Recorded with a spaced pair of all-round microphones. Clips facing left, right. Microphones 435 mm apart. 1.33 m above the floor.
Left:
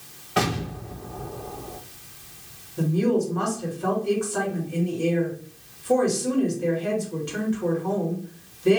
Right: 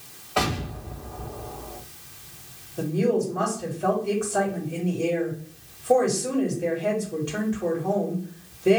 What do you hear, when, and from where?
0.4 s an explosion: 30° left (ahead or behind), 1.3 m
2.8 s a woman speaking: 10° left (ahead or behind), 2.5 m